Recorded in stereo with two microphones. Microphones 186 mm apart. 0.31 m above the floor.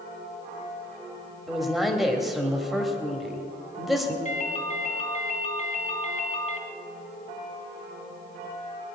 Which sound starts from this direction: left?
A ringtone, at 4.2 s.